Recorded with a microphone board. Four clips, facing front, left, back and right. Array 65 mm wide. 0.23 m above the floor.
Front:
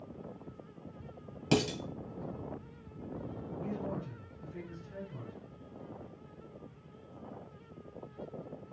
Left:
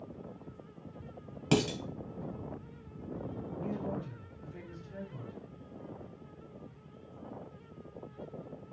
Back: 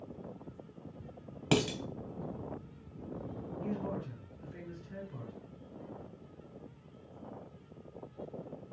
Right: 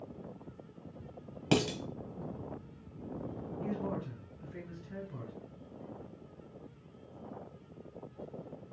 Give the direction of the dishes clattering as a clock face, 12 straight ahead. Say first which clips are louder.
Left 1 dB, even; 6 o'clock.